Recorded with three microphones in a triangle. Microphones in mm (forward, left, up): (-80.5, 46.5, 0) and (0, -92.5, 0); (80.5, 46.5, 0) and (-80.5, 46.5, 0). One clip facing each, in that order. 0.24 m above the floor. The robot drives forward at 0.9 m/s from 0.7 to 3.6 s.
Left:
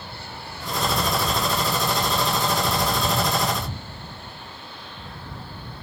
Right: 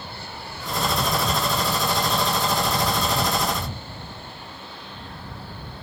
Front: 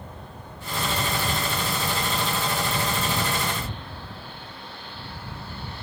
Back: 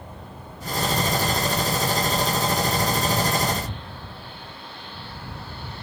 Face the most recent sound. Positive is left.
No sound to turn to.